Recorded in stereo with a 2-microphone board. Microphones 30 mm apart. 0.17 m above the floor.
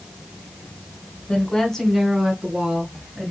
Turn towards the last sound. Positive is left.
turn(degrees=-25)  # may be behind; listen again after turning